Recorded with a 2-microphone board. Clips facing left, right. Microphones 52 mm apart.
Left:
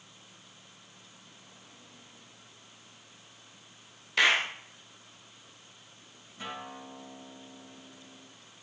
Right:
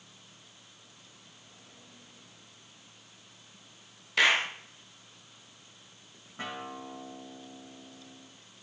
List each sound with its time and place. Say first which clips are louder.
4.2 s a clap: even; centre (ahead or behind), 1.3 m
6.4 s a guitar: right 2 dB; 50° right (ahead or behind), 6 m